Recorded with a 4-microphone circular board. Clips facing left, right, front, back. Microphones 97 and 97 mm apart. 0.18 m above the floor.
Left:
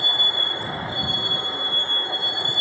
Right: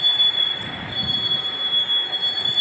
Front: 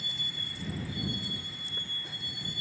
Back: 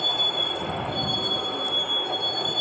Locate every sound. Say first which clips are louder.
0.0 s a vehicle: left 3 dB, back 15 dB; 155° left